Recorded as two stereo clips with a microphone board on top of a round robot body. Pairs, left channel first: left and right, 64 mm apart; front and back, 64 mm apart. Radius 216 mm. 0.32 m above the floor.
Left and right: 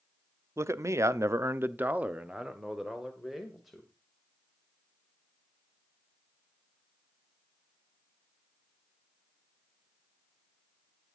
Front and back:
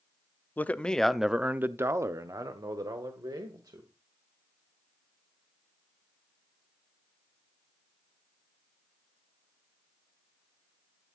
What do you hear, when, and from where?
0.6 s a man speaking: 60° right, 1.2 m; by 3.9 s straight behind, 2.5 m